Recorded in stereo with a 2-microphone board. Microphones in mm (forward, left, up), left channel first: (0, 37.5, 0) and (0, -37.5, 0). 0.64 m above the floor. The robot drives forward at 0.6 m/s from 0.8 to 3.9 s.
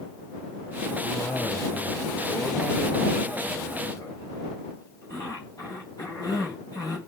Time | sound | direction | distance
1.0 | a cough | 75° left (ahead or behind) | 3 m